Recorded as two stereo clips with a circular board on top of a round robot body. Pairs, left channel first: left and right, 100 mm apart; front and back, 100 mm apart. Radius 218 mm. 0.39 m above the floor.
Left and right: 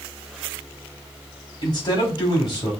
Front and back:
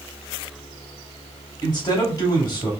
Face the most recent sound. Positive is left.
turn(degrees=45)